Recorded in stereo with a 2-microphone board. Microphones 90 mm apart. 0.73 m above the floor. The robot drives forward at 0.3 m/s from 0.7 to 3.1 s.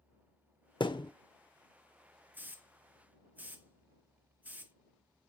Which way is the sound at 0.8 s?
65° left (ahead or behind).